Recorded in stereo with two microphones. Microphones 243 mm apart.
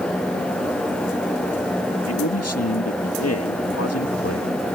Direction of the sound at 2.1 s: 85° left.